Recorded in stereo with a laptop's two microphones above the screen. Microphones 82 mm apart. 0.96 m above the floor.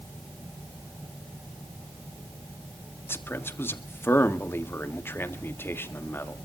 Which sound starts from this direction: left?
A man speaking, at 3.1 s.